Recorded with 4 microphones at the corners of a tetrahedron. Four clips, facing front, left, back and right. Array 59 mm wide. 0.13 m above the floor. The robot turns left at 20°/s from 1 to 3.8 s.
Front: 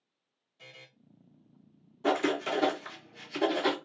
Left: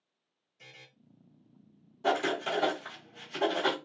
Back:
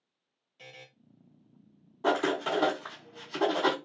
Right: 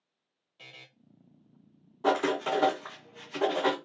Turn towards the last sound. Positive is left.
turn(degrees=-170)